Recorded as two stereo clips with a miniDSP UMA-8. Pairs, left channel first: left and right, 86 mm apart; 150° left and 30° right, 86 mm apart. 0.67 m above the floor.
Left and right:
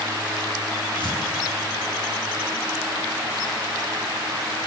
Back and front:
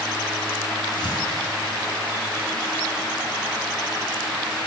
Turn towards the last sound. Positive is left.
turn(degrees=115)